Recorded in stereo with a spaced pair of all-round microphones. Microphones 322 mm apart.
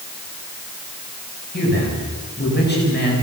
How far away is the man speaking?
About 9.5 m.